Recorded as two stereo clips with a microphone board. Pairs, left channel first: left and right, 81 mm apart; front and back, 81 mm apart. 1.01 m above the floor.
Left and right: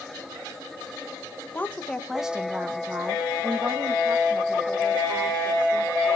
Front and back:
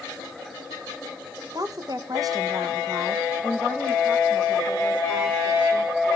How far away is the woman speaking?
About 1.2 m.